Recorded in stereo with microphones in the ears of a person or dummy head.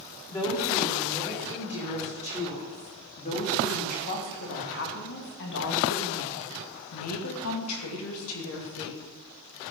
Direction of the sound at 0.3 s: 25° left (ahead or behind).